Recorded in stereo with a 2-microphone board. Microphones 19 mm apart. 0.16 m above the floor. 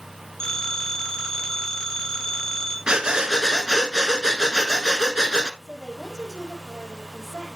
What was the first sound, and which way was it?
A phone ringing, 40° left (ahead or behind).